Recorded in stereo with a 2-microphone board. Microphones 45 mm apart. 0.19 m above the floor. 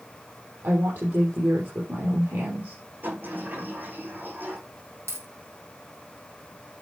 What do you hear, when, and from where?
0.6 s a woman speaking: 65° right (ahead or behind), 6.5 m
3.0 s a sliding door: 50° right (ahead or behind), 9 m
5.1 s a dropped coin: 75° right (ahead or behind), 3.5 m